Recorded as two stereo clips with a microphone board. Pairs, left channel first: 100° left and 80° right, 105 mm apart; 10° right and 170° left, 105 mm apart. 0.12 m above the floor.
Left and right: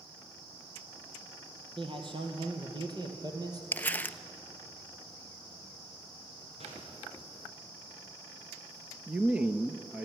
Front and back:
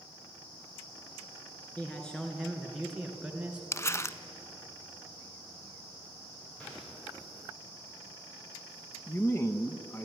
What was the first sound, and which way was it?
A man speaking, 90° right.